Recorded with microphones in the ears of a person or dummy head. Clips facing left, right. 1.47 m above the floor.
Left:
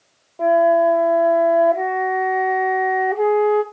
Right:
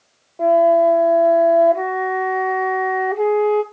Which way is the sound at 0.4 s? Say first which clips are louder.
Right 1 dB; 5° right (ahead or behind).